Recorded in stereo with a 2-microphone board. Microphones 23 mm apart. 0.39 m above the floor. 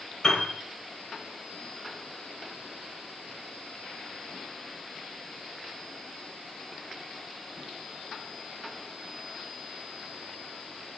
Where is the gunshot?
I don't hear a gunshot.